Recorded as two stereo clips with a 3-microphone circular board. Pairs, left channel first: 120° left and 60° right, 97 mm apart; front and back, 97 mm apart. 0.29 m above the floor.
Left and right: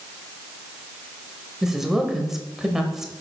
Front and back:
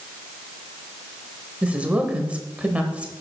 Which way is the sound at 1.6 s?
135° right.